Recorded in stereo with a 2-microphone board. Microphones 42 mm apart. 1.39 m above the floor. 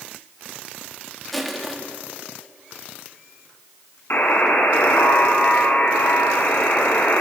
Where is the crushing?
Centre (ahead or behind), 3.5 m.